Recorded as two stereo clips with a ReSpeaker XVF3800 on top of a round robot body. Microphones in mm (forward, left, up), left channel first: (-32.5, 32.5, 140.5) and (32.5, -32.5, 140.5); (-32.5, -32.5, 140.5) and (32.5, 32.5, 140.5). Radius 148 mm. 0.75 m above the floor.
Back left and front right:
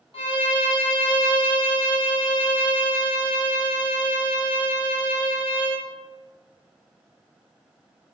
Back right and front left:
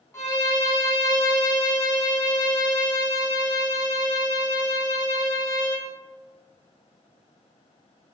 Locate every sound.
0.1 s a violin: 160° left, 1.3 m